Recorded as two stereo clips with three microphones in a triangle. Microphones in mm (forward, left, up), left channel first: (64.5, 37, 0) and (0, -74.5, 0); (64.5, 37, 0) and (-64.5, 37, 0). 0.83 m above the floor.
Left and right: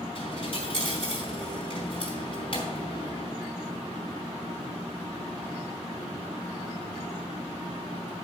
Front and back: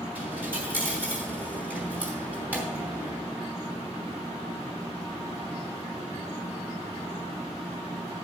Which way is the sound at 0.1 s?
105° left.